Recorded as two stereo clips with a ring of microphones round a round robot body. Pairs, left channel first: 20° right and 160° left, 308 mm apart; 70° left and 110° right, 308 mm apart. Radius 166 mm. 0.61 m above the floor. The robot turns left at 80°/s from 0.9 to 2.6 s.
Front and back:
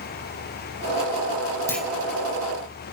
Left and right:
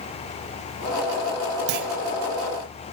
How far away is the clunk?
About 1.7 m.